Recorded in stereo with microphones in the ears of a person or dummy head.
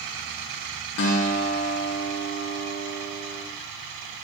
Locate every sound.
1.0 s a guitar: 60° left (ahead or behind), 1.5 m